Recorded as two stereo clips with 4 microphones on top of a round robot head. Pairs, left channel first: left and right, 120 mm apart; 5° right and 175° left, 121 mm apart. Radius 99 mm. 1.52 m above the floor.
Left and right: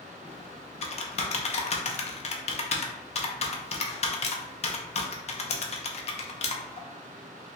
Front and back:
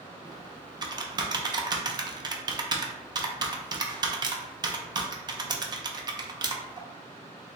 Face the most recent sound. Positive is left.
turn(degrees=120)